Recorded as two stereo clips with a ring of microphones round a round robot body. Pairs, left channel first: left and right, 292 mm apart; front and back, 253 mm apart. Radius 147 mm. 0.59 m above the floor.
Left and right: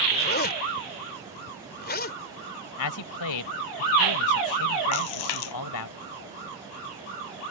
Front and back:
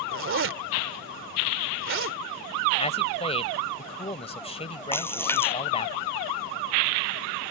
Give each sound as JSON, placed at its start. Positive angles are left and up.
{"t": 0.1, "sound": "a zipper", "azimuth_deg": 145}
{"t": 2.8, "sound": "a man speaking", "azimuth_deg": 65}
{"t": 4.9, "sound": "a splash", "azimuth_deg": 80}